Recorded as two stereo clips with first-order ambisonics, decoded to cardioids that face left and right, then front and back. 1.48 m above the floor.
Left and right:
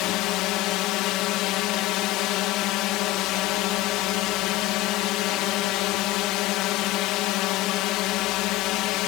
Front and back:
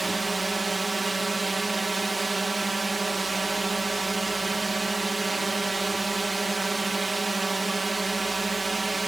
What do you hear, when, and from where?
0.0 s a drone: 100° left